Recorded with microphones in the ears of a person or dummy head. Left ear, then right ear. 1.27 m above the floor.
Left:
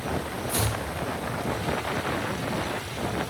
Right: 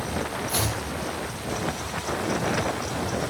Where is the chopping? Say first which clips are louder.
Left 1 dB; centre (ahead or behind), 3 m.